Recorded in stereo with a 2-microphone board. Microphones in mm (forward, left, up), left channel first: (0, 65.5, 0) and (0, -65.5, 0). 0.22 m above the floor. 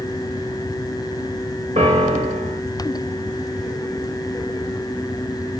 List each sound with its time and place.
1.8 s a piano: 60° right (ahead or behind), 3.5 m